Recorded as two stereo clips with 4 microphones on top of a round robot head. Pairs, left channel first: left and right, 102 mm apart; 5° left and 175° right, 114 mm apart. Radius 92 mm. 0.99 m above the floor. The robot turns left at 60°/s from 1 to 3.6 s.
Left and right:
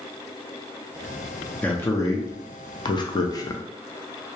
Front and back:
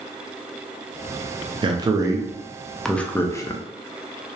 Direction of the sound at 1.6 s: 160° left.